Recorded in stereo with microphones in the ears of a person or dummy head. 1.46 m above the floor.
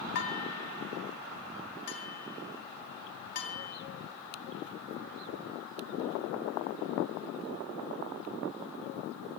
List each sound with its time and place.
0.1 s dishes clattering: 60° left (ahead or behind), 2.5 m